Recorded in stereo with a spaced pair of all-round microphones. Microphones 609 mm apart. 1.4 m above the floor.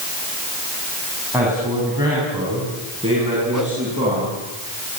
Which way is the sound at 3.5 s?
30° right (ahead or behind).